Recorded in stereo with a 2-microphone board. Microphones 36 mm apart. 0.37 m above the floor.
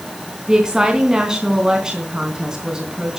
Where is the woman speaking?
20° right (ahead or behind), 3.5 m.